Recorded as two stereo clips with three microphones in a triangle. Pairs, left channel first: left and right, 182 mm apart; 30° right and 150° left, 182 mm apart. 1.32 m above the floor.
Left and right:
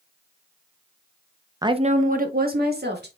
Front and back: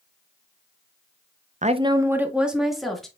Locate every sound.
1.6 s a woman speaking: 160° right, 0.7 m; by 3.1 s 120° right, 2.5 m